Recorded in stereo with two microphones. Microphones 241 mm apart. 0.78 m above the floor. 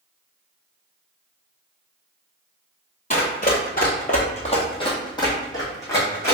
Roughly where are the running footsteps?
Left.